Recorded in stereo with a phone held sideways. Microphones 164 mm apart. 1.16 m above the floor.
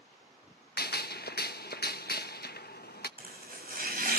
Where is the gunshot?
75° left (ahead or behind), 0.9 m.